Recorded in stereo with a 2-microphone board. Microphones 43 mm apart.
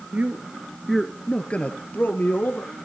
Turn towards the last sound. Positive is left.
turn(degrees=55)  # may be behind; listen again after turning